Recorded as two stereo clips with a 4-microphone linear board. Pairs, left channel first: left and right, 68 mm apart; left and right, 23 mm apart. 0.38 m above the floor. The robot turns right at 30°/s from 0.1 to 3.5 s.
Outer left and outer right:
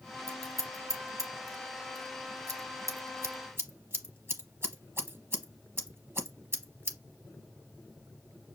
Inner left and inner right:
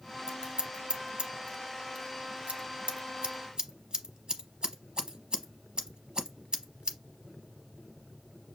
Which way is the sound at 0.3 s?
35° right (ahead or behind).